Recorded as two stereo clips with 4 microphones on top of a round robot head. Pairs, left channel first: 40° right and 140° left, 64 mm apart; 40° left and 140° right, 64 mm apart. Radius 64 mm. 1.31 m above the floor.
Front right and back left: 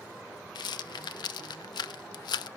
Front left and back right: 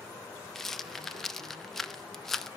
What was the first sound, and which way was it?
A rattle, 45° right.